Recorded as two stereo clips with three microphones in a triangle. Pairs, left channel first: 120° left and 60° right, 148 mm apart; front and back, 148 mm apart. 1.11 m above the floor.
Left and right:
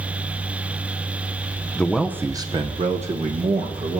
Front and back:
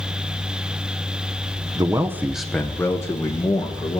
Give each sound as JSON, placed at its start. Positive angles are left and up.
{"t": 1.8, "sound": "a man speaking", "azimuth_deg": -170, "distance_m": 0.7}